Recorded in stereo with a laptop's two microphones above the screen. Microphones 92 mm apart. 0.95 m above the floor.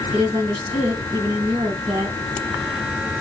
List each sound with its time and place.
0.1 s a woman speaking: 85° right, 3.5 m